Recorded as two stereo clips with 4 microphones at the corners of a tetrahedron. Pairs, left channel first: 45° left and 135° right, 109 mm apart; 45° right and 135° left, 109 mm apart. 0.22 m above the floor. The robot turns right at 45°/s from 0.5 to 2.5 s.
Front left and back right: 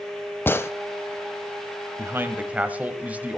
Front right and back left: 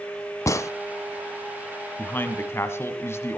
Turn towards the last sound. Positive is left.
turn(degrees=-75)